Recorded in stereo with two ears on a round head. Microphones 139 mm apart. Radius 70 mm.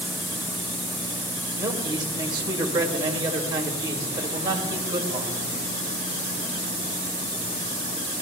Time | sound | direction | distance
1.6 | a man speaking | 30° right (ahead or behind) | 2 m